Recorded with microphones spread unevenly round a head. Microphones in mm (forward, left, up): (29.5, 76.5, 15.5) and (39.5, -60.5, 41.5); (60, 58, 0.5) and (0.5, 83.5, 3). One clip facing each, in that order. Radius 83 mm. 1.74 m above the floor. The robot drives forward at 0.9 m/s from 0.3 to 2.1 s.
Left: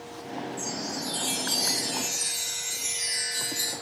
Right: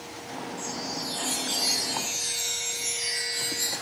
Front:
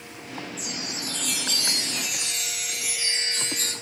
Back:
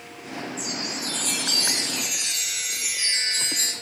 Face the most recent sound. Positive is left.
turn(degrees=140)